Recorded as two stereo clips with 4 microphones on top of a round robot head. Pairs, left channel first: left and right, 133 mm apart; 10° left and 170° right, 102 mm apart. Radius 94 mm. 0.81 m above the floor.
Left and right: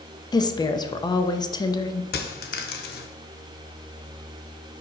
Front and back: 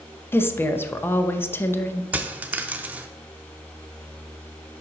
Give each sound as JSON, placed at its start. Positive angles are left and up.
{"t": 0.3, "sound": "a woman speaking", "azimuth_deg": 60, "distance_m": 0.7}
{"t": 2.1, "sound": "a dropped coin", "azimuth_deg": 115, "distance_m": 0.5}